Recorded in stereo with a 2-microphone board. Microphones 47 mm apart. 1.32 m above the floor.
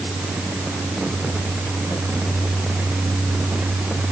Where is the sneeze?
I don't hear a sneeze.